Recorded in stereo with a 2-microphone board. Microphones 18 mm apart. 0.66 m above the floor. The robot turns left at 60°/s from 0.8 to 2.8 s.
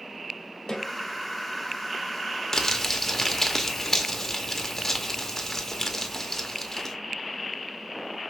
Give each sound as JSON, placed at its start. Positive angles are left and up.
{"t": 0.7, "sound": "a snare drum", "side_deg": 50, "distance_m": 1.7}
{"t": 2.5, "sound": "crumpling", "side_deg": 30, "distance_m": 0.7}